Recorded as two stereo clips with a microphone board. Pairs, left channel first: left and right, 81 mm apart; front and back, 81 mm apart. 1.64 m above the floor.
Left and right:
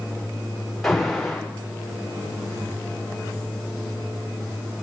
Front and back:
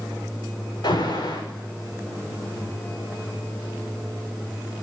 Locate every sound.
0.8 s an alarm: straight ahead, 6.5 m